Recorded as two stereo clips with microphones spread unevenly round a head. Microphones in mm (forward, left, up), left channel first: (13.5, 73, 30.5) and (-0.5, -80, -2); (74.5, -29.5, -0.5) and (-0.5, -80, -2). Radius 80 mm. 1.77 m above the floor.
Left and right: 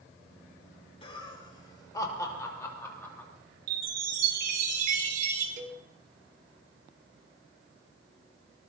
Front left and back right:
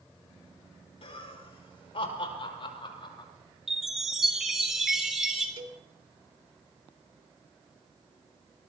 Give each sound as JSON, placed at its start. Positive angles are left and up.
{"t": 1.0, "sound": "laughter", "azimuth_deg": 30, "distance_m": 5.0}
{"t": 3.7, "sound": "a chime", "azimuth_deg": -60, "distance_m": 5.0}
{"t": 5.6, "sound": "a cowbell", "azimuth_deg": -140, "distance_m": 2.5}